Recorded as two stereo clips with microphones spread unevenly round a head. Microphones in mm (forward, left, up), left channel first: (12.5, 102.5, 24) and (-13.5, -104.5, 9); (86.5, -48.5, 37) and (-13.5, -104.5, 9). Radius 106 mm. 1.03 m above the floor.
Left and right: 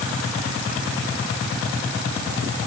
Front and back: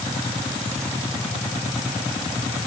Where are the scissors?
I don't hear scissors.